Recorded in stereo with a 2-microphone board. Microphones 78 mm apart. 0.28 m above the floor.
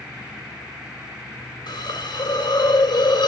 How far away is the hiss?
About 3.5 m.